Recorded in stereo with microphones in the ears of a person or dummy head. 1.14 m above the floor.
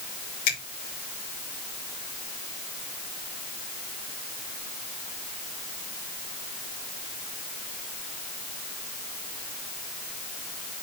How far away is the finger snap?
About 2.5 m.